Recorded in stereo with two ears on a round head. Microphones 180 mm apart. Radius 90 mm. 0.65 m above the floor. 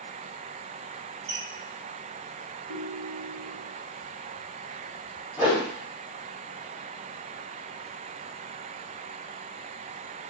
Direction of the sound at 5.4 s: 10° right (ahead or behind).